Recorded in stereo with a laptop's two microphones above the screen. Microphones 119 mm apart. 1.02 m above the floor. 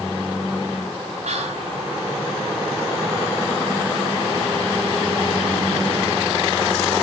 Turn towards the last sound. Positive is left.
turn(degrees=-75)  # may be behind; listen again after turning